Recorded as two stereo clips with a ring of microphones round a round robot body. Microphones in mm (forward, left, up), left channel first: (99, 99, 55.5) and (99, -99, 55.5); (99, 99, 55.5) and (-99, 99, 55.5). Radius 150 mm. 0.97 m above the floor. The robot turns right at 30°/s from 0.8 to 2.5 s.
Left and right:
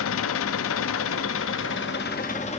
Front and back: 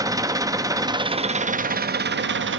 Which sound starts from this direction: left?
An engine running, at 0.0 s.